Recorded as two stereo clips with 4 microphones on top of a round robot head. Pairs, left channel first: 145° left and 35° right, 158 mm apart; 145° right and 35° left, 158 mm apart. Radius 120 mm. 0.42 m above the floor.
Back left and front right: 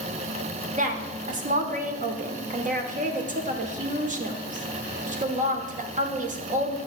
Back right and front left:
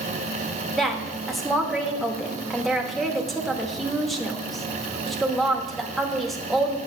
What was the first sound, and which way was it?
A woman speaking, 55° right.